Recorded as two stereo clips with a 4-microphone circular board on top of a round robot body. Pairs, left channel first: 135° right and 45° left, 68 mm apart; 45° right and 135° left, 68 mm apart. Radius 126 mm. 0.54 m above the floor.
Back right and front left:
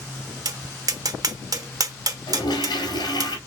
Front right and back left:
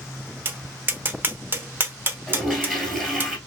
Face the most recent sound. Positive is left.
turn(degrees=-130)